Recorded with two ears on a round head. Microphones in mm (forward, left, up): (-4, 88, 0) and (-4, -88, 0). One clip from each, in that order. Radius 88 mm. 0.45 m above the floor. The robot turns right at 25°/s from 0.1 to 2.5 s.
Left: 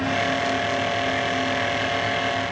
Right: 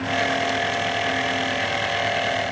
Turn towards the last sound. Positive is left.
No sound to turn to.